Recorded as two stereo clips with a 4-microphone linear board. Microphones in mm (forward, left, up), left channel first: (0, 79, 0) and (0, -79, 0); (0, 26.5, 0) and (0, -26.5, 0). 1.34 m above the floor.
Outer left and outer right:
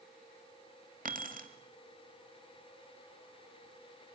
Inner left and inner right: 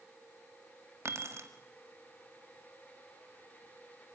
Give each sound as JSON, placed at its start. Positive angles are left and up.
{"t": 1.1, "sound": "keys jangling", "side_deg": -60, "distance_m": 2.0}